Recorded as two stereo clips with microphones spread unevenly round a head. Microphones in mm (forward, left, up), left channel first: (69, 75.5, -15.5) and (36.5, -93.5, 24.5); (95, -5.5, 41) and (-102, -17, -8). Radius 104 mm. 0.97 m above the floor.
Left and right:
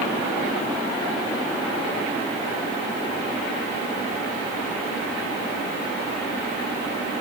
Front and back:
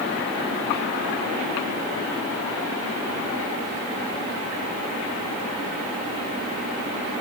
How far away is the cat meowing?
I don't hear a cat meowing.